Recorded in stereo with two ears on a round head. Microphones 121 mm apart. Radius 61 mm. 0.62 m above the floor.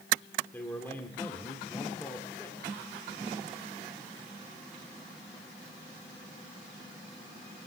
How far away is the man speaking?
About 2 m.